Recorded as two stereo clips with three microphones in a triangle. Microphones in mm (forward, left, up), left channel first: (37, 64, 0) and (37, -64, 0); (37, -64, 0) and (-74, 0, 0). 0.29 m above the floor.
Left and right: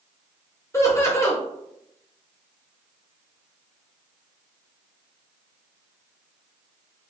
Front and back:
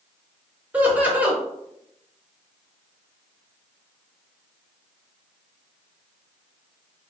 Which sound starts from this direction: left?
Laughter, at 0.7 s.